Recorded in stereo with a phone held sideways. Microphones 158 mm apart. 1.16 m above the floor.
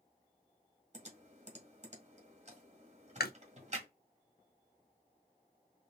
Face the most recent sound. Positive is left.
turn(degrees=85)